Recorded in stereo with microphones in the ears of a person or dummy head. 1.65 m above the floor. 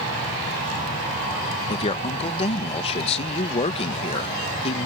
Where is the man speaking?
35° left (ahead or behind).